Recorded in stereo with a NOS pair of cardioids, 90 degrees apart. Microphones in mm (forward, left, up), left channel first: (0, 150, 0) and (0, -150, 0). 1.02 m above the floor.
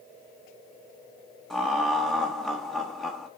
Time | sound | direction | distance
1.5 | laughter | straight ahead | 0.7 m